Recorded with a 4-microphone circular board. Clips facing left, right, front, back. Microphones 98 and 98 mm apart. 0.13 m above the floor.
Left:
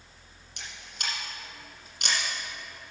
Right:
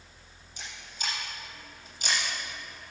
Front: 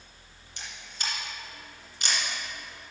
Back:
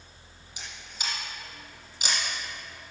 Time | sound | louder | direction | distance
0.6 | a camera shutter | even, front 1 dB | 95° left | 3 m